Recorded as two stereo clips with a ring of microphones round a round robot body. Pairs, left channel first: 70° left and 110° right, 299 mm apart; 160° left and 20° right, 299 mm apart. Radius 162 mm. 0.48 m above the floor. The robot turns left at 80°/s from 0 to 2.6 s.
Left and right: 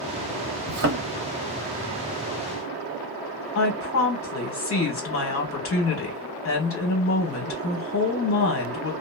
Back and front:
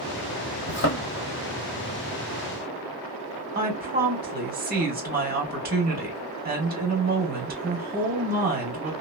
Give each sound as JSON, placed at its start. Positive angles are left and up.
{"t": 0.7, "sound": "a thud", "azimuth_deg": -145, "distance_m": 1.0}
{"t": 3.5, "sound": "a woman speaking", "azimuth_deg": 35, "distance_m": 1.6}